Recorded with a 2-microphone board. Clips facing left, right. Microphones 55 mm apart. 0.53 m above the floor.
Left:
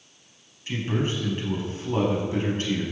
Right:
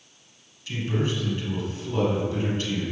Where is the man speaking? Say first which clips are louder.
Even; 35° left (ahead or behind), 5 m.